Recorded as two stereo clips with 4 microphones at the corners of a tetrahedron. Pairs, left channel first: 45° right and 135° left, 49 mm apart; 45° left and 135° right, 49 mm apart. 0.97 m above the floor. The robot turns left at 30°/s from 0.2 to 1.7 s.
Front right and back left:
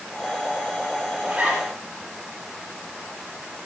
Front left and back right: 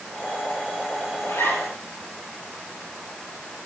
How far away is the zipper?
About 7 m.